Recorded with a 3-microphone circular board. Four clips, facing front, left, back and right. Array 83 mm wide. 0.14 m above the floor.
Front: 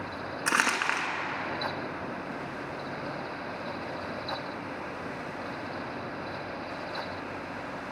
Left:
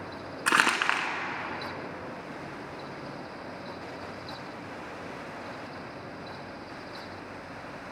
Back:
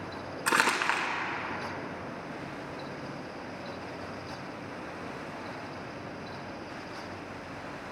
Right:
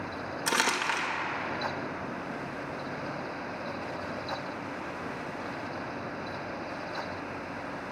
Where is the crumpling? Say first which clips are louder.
Left 4 dB, back 1 dB; 80° left, 1.2 m.